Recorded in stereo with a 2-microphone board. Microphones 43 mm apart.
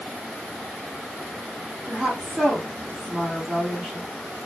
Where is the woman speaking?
35° right (ahead or behind), 2.0 m.